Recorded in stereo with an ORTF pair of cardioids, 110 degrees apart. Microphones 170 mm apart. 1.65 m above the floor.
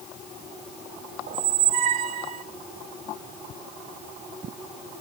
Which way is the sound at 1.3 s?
65° right.